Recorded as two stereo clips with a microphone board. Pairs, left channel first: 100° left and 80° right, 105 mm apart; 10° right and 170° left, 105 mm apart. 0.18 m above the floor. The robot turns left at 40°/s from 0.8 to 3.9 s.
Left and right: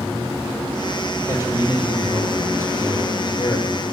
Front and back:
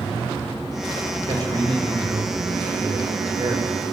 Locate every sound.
1.2 s a man speaking: 135° right, 4.5 m; by 3.8 s 125° left, 4.5 m